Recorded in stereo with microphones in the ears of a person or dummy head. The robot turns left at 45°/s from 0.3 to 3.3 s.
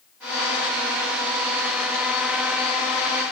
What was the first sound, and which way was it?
Only background noise.